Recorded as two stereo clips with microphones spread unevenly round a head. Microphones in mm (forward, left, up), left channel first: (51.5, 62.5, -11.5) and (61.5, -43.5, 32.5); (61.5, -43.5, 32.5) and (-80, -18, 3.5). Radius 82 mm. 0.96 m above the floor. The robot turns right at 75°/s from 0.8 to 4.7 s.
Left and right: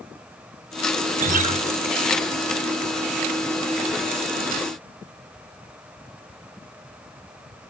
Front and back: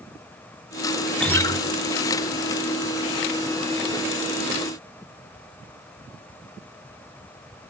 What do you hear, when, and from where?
1.2 s a guitar: 95° right, 2 m; by 1.6 s 65° right, 2 m